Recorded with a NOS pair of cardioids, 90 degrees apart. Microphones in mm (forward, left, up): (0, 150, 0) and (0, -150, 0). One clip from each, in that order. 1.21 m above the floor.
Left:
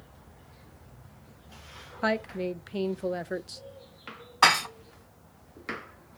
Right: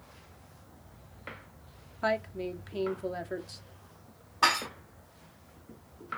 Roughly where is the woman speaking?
Ahead.